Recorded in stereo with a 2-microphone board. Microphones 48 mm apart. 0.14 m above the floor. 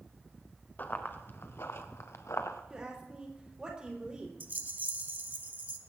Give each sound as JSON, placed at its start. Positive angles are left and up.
{"t": 0.8, "sound": "running footsteps", "side_deg": 40, "distance_m": 2.5}
{"t": 2.7, "sound": "a woman speaking", "side_deg": -20, "distance_m": 4.5}
{"t": 4.4, "sound": "a rattle", "side_deg": -40, "distance_m": 1.0}